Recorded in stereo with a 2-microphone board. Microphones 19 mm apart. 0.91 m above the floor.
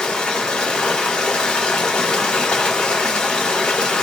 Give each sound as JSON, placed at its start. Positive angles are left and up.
{"t": 0.0, "sound": "running water", "side_deg": 60, "distance_m": 1.0}